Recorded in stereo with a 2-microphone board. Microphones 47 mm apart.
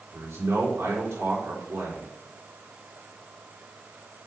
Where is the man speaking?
75° right (ahead or behind), 3.5 m.